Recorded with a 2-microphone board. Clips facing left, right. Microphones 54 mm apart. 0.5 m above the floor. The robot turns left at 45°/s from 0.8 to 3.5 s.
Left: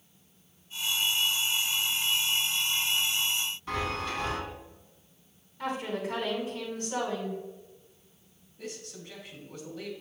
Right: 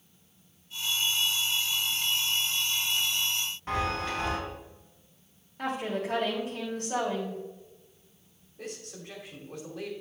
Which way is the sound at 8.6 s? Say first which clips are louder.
Right 1 dB; 65° right (ahead or behind).